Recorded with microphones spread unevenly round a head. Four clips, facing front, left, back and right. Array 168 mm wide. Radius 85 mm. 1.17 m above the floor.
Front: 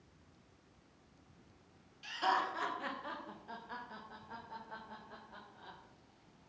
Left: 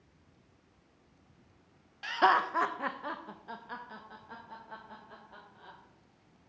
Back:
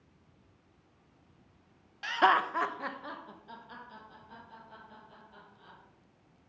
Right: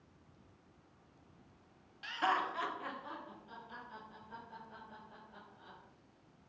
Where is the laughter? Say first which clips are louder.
Left 8 dB, back 8 dB; 150° left, 0.7 m; by 5.8 s 65° left, 3 m.